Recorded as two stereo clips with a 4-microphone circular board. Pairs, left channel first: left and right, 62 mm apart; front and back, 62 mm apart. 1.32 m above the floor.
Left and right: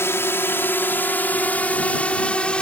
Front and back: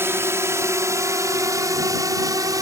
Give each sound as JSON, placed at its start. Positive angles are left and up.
{"t": 0.0, "sound": "a drone", "azimuth_deg": 130}